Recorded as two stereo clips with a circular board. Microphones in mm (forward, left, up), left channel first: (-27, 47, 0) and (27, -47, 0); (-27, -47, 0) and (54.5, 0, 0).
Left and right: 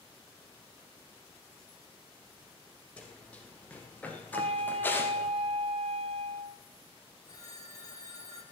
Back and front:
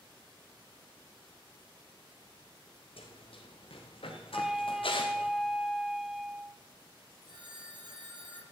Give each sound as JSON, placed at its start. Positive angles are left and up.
{"t": 3.0, "sound": "running footsteps", "azimuth_deg": -160, "distance_m": 4.5}
{"t": 4.3, "sound": "a flute", "azimuth_deg": -55, "distance_m": 0.7}
{"t": 7.2, "sound": "a phone ringing", "azimuth_deg": 65, "distance_m": 2.5}